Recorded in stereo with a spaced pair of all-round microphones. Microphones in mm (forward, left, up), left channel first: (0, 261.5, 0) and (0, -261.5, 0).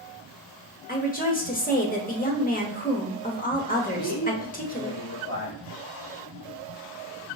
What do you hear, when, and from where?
0.9 s a woman speaking: 15° left (ahead or behind), 0.8 m
3.9 s a man speaking: 30° left (ahead or behind), 1.2 m